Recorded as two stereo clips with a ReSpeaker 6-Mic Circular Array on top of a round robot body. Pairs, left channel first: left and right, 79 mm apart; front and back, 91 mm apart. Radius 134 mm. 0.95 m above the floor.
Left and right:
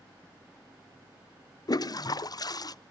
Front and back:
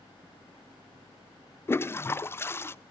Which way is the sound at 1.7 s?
60° left.